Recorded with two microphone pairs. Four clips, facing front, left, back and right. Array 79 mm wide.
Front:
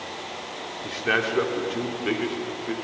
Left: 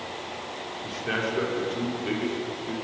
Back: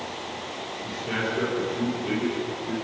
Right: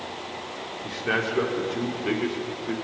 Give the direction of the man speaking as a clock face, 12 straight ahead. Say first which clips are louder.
Right 3 dB, front 5 dB; 1 o'clock.